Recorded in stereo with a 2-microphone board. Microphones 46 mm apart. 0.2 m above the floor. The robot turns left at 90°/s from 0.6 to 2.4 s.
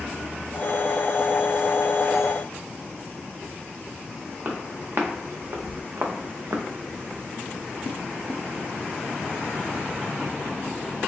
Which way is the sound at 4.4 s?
40° right (ahead or behind).